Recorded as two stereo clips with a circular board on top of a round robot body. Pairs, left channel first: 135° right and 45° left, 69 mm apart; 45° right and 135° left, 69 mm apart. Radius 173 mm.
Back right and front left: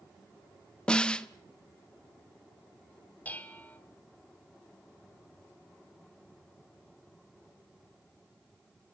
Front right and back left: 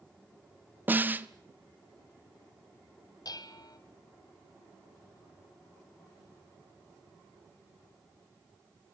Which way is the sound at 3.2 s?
70° right.